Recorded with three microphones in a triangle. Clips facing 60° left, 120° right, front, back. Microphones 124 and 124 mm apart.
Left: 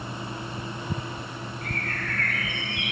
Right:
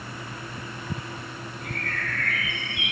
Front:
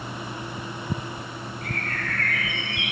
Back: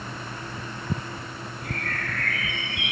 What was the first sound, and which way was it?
A bird, 25° left.